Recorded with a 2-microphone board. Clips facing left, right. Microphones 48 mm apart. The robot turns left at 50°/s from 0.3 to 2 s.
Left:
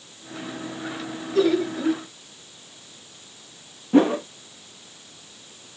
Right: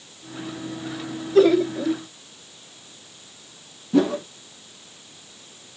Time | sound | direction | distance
1.4 | laughter | 125° right | 1.6 m
3.9 | a whoosh | 35° left (ahead or behind) | 0.6 m